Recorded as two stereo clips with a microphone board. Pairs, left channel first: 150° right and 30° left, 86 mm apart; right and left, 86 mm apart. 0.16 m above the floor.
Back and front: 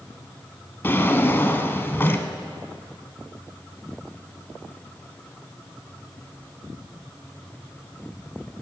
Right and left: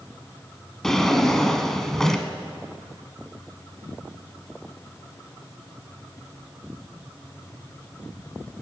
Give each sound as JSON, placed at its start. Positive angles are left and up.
{"t": 0.8, "sound": "a drawer", "azimuth_deg": -170, "distance_m": 0.8}